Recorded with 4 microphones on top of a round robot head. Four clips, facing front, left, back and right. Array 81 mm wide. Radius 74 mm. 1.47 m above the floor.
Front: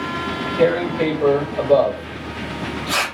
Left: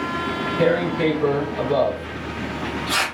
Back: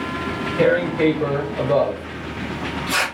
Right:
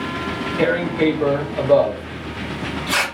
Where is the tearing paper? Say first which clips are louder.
Right 1 dB, back 1 dB; 105° right, 2.5 m.